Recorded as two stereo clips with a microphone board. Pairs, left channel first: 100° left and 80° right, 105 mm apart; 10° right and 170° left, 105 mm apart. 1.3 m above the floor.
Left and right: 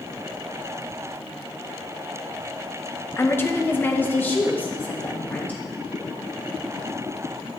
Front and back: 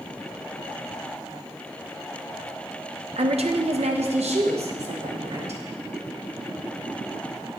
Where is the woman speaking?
165° left, 0.7 m; by 5.6 s 175° left, 2 m.